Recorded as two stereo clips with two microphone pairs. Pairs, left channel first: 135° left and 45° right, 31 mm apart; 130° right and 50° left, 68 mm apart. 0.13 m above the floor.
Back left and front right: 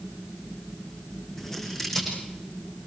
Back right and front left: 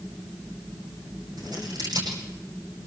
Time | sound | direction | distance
1.4 | scissors | 55° left | 8 m